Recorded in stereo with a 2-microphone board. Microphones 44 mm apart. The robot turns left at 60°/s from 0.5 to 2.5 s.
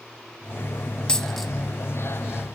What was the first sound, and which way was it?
A dropped coin, 20° left (ahead or behind).